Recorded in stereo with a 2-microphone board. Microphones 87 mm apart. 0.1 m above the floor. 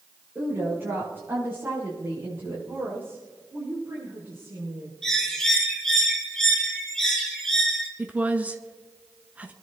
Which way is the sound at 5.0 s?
5° left (ahead or behind).